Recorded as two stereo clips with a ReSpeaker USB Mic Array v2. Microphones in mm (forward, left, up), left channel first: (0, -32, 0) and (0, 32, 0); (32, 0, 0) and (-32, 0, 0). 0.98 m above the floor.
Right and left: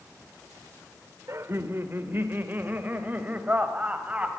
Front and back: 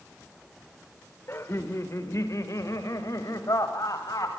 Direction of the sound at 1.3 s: 50° left.